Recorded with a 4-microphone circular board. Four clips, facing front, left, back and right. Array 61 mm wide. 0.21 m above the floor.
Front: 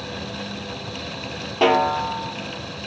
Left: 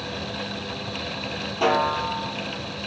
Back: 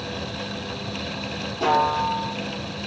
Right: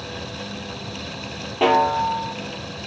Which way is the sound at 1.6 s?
30° right.